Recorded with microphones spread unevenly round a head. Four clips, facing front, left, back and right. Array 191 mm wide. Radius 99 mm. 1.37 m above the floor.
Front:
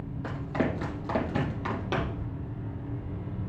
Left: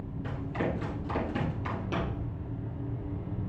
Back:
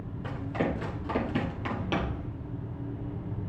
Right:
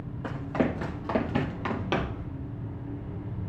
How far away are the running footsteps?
About 2.5 m.